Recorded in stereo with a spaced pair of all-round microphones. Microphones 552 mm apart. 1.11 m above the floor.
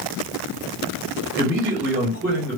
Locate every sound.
1.4 s a man speaking: 5° right (ahead or behind), 1.8 m